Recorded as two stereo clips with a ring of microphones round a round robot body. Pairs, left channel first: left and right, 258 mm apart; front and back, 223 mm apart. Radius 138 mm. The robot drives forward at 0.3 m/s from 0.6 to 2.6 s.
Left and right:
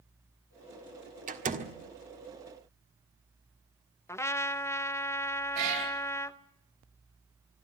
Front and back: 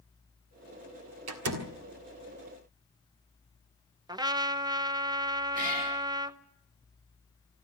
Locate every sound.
1.3 s a door slam: 150° right, 1.5 m; by 1.8 s 155° right, 1.6 m
4.1 s a trumpet: 150° left, 0.9 m
5.5 s a cat meowing: 120° right, 5 m